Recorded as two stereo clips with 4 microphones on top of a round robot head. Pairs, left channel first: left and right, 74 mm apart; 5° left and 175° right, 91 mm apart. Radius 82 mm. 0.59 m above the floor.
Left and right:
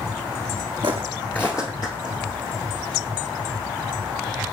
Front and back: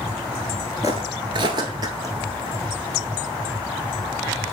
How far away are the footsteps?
About 0.7 m.